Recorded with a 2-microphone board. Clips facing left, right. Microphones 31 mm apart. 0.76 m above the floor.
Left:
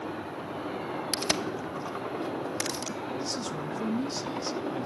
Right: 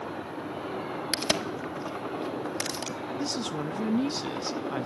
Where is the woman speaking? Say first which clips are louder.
Right 2 dB; 45° right (ahead or behind), 0.7 m.